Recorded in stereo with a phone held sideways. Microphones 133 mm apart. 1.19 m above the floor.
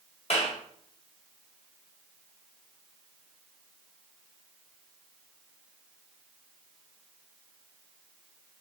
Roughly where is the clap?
Left.